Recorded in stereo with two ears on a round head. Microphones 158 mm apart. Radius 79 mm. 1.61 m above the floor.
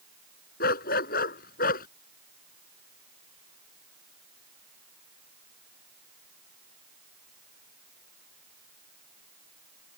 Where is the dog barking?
60° left (ahead or behind).